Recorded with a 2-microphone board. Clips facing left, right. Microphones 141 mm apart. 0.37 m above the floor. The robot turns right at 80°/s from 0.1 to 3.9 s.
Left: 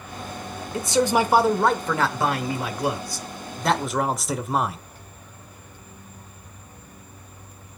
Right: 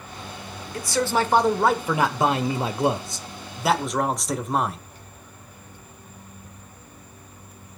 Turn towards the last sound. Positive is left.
turn(degrees=0)  # may be behind; listen again after turning